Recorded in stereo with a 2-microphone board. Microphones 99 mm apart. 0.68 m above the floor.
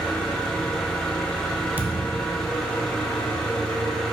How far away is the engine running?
About 1.0 m.